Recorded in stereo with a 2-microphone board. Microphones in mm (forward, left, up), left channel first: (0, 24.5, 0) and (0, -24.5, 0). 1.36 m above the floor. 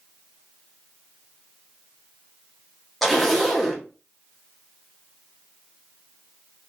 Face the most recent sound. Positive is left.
turn(degrees=0)  # may be behind; listen again after turning